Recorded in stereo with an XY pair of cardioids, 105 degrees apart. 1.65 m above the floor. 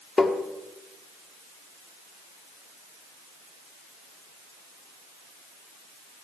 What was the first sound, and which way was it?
Tapping, 15° left.